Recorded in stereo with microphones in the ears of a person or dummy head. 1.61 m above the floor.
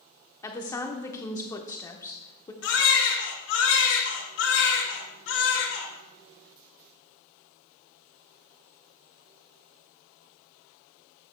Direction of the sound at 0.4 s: 15° left (ahead or behind).